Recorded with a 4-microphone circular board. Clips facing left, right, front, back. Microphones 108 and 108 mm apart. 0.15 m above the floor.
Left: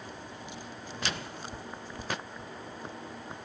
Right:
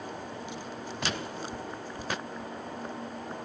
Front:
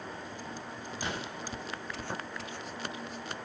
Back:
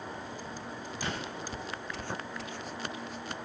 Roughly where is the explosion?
Right.